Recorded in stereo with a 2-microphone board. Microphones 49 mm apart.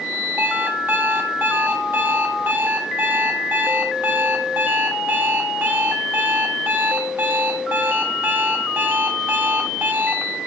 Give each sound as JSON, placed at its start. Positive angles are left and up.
{"t": 0.4, "sound": "an alarm clock", "side_deg": -40, "distance_m": 1.7}